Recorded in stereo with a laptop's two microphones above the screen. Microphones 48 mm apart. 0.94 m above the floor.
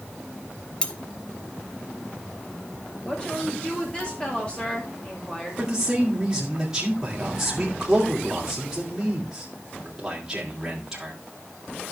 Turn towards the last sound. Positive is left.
turn(degrees=-15)  # may be behind; listen again after turning